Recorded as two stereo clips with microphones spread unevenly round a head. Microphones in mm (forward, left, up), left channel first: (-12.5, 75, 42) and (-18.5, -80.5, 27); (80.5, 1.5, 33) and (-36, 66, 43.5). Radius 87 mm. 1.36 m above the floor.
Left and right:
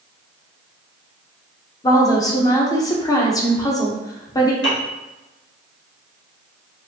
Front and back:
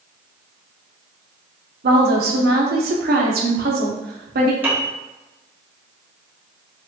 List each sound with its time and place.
1.8 s a woman speaking: 155° left, 1.1 m
4.6 s a piano: 80° left, 1.4 m